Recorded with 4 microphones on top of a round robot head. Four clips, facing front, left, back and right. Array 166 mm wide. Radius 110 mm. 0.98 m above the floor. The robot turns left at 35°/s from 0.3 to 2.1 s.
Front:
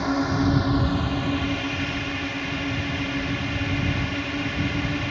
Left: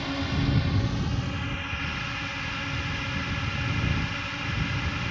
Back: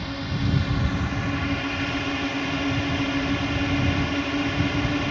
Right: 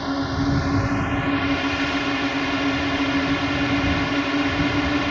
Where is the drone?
35° right; by 5.1 s 100° right.